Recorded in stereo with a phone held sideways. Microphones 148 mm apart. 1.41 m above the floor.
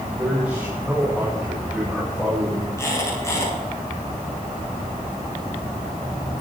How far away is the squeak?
About 10 m.